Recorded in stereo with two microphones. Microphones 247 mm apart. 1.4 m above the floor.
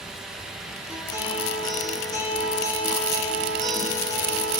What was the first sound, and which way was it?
A guitar, 15° left (ahead or behind).